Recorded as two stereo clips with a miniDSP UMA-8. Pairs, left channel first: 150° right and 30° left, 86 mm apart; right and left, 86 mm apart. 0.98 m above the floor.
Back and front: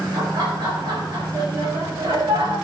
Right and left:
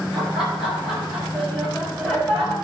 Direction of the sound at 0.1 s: 15° left.